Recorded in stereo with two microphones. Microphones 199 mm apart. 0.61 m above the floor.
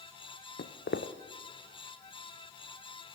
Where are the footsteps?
65° left (ahead or behind), 1.5 m.